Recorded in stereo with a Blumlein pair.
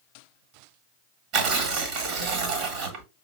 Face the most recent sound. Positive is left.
turn(degrees=-35)